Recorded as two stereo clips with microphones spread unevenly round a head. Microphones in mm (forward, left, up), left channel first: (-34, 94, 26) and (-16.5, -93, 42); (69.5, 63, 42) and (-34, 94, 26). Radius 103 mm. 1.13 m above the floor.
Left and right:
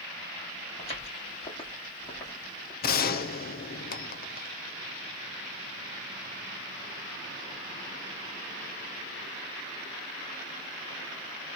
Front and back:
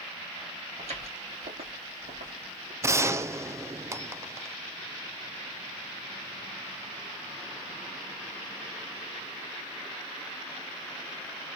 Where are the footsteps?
155° left, 3.5 m; by 2.7 s 175° left, 2.5 m.